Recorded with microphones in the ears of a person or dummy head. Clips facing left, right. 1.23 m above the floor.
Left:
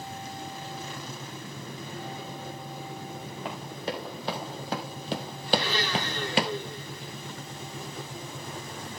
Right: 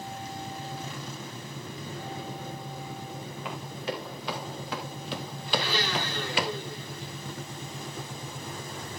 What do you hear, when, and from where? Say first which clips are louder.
3.5 s running footsteps: even; 35° left (ahead or behind), 5 m; by 6.5 s 30° left (ahead or behind), 1.4 m
5.5 s a blender: left 2 dB; centre (ahead or behind), 10 m